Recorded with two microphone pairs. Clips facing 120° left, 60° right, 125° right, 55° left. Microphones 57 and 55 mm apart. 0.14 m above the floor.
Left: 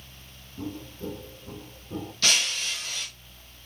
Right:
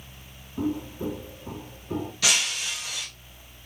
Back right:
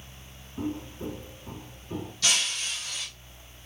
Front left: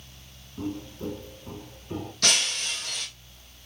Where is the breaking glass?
20° left, 2.5 m.